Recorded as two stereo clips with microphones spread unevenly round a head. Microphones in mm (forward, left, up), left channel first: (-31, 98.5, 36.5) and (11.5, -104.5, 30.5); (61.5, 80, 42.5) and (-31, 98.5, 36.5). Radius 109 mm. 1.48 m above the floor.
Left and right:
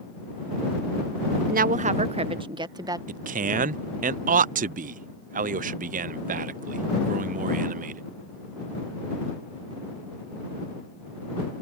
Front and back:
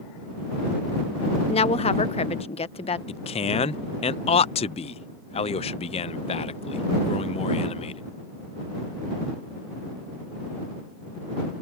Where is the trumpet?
No trumpet in this recording.